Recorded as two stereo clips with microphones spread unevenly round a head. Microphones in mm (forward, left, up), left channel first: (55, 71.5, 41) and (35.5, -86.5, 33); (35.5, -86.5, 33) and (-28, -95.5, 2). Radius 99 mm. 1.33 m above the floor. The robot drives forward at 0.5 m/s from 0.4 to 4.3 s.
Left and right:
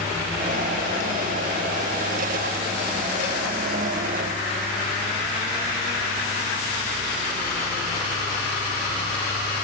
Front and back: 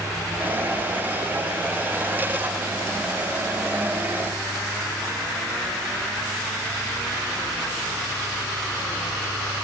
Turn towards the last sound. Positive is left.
No sound to turn to.